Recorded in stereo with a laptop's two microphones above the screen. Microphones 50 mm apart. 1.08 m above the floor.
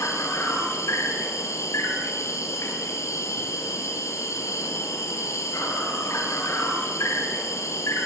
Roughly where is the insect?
Left.